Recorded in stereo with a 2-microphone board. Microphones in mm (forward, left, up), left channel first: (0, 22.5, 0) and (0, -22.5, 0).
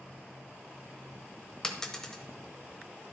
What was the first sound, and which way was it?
A dropped coin, 15° left (ahead or behind).